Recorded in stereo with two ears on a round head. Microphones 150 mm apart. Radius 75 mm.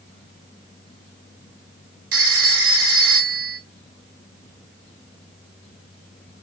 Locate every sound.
2.1 s a phone ringing: 75° right (ahead or behind), 1.1 m